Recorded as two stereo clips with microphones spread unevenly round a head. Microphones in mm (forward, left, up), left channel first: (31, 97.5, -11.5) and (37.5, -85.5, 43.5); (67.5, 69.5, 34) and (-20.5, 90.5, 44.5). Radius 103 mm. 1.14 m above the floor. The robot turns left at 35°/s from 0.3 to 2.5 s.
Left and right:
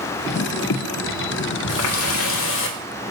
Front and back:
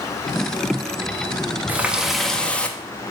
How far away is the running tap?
About 1.0 m.